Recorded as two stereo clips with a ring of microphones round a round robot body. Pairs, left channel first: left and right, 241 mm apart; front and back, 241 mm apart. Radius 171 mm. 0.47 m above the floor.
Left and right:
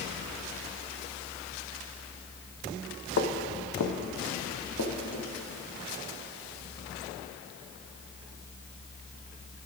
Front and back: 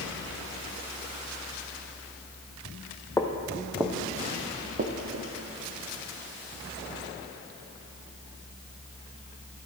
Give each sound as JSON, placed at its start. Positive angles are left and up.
{"t": 3.2, "sound": "footsteps", "azimuth_deg": 75, "distance_m": 1.1}